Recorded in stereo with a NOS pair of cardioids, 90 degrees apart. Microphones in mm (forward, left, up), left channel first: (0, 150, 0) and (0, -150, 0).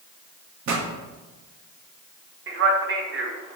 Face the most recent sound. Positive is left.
turn(degrees=-40)